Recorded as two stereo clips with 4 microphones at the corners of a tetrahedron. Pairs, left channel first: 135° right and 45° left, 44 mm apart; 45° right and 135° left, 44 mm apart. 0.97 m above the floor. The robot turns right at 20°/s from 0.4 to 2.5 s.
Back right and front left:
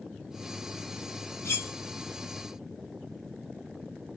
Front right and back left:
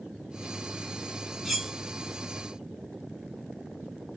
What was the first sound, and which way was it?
Cutlery clinking, 140° right.